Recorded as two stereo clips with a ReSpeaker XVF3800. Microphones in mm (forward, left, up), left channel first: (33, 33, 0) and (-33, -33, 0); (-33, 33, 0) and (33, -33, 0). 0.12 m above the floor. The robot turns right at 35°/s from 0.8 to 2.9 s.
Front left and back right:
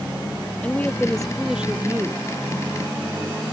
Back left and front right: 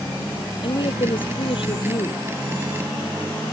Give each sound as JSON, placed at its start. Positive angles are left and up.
{"t": 0.6, "sound": "a woman speaking", "azimuth_deg": 120}